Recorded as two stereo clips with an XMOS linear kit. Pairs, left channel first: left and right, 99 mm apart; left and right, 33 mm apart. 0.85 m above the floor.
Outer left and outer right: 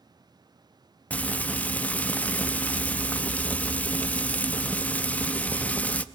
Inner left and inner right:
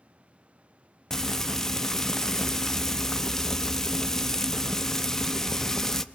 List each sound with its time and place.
1.1 s frying: 15° left (ahead or behind), 0.7 m